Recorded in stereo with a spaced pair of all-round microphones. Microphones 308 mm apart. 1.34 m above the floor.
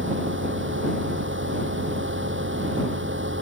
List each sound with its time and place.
0.0 s a fan: 40° right (ahead or behind)